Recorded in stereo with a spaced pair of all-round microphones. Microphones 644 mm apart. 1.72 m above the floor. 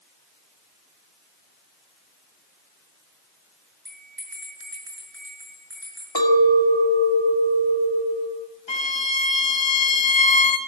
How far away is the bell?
About 6.5 m.